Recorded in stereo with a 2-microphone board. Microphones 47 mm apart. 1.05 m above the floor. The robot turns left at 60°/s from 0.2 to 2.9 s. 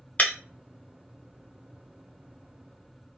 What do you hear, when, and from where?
0.2 s breaking glass: 30° left (ahead or behind), 0.7 m